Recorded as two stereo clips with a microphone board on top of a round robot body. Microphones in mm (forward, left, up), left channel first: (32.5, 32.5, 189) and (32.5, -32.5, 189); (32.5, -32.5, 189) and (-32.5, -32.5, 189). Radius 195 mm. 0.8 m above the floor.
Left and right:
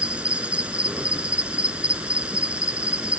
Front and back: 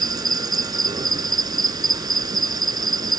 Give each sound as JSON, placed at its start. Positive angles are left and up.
{"t": 0.0, "sound": "an insect", "azimuth_deg": -165}